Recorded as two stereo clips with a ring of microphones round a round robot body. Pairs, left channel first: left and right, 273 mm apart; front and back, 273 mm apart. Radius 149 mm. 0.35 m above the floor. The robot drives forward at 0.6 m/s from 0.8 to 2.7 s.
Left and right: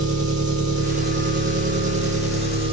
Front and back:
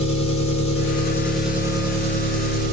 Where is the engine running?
50° right, 1.0 m; by 2.7 s 150° right, 1.3 m.